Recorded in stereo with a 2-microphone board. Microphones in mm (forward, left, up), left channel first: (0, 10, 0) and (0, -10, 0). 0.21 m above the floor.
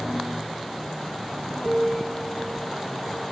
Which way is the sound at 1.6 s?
35° right (ahead or behind).